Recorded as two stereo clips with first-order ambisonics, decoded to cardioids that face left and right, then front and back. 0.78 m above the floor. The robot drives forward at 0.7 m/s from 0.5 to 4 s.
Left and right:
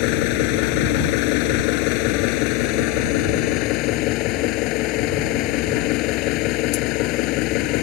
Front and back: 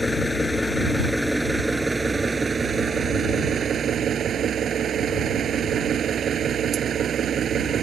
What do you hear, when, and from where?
0.0 s an engine running: 85° left; by 7.8 s 120° left